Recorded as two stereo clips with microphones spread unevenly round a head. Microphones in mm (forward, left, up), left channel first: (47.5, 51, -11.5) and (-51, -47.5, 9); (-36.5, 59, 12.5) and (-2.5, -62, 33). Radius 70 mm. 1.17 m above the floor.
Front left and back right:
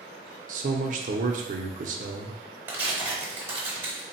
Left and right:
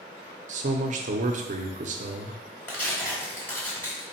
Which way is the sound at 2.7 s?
175° right.